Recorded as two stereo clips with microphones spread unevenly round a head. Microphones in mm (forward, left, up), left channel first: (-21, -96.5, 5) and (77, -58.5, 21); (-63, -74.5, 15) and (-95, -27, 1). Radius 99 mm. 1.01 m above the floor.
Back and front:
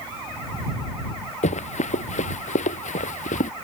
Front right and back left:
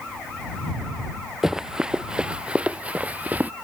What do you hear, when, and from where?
1.4 s running footsteps: 155° right; by 3.5 s 175° right